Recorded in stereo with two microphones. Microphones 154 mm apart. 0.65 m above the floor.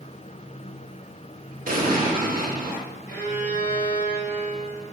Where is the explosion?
65° right (ahead or behind), 0.6 m.